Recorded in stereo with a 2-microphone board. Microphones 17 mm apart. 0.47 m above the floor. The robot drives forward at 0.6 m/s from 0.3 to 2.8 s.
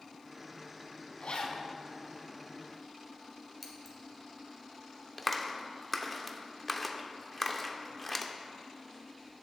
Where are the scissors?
10° right (ahead or behind), 1.8 m.